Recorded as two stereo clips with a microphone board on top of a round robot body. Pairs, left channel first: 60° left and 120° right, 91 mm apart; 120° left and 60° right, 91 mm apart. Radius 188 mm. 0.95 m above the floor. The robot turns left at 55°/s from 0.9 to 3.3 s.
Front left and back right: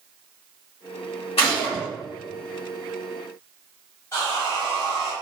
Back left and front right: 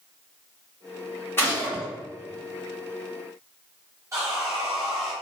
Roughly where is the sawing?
Ahead.